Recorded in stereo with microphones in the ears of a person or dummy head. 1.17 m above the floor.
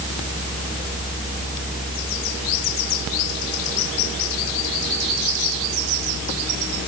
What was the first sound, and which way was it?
Only background noise.